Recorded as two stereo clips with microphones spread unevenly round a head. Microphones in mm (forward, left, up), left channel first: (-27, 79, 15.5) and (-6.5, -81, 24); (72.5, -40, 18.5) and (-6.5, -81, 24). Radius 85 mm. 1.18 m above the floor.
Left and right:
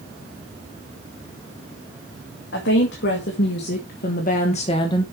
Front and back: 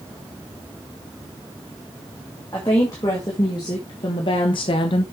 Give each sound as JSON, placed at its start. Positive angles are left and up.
{"t": 2.5, "sound": "a woman speaking", "azimuth_deg": 95, "distance_m": 2.5}